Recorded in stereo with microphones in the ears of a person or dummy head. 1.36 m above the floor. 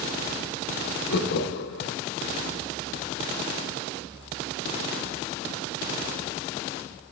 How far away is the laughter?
About 0.7 m.